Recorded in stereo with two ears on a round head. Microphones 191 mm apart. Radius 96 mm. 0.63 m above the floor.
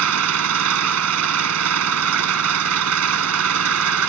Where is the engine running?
80° right.